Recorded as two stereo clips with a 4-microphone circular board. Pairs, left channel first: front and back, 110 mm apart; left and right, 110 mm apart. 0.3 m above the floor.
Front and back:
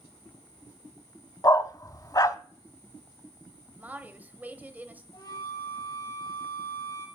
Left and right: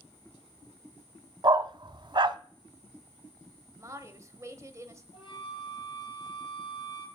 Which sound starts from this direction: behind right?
A woman speaking, at 3.8 s.